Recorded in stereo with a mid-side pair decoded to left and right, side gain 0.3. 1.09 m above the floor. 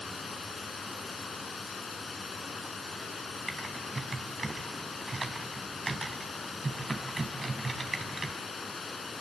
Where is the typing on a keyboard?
30° right, 4.5 m.